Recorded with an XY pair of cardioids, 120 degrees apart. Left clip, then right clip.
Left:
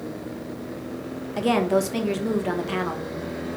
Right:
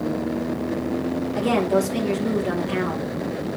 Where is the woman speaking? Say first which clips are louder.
Even; 20° left, 1.6 m.